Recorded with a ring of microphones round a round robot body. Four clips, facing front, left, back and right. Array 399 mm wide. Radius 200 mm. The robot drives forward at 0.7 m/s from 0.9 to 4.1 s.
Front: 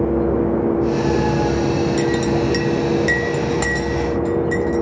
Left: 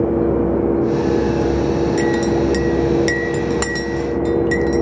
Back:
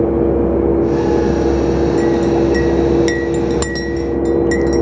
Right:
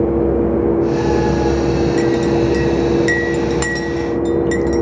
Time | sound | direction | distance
2.0 | a clink | 20° left | 0.7 m